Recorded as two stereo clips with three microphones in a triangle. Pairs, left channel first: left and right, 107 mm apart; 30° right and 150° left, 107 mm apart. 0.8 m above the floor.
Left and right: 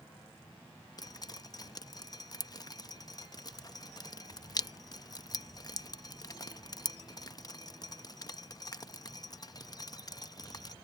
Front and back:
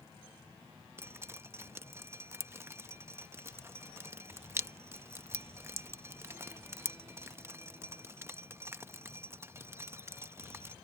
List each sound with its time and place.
1.0 s dripping: 100° left